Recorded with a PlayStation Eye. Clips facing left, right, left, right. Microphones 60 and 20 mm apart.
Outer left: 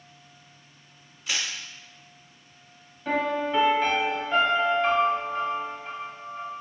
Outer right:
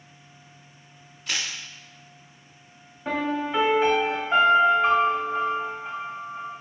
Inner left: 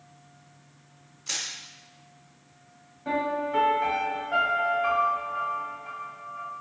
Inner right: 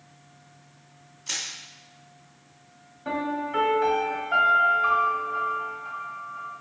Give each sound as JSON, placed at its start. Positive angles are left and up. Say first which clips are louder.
{"t": 1.3, "sound": "crushing", "louder": "even, even", "side_deg": 0, "distance_m": 0.7}
{"t": 3.0, "sound": "a piano", "louder": "outer left 1 dB, inner left 1 dB", "side_deg": -15, "distance_m": 1.3}